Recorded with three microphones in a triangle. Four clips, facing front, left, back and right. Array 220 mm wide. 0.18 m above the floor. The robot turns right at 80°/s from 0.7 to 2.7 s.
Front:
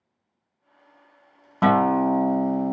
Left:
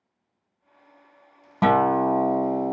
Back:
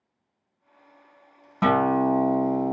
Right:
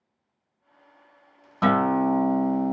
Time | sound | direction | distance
1.6 | a guitar | 50° left | 0.7 m